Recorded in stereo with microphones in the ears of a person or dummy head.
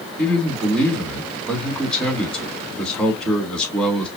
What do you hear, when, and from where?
0.2 s a man speaking: centre (ahead or behind), 2.5 m